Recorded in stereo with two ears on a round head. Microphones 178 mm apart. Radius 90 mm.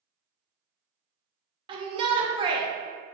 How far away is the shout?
About 0.5 m.